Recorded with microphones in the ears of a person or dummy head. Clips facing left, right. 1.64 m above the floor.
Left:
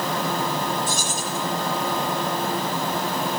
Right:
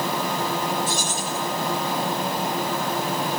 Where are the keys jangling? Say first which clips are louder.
Even; 45° left (ahead or behind), 8 m.